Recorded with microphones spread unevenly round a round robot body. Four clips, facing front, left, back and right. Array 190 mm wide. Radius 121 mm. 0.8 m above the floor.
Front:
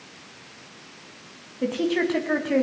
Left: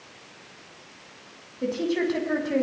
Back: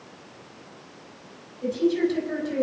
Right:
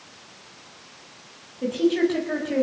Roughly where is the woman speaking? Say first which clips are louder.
Right 4 dB, back 1 dB; ahead.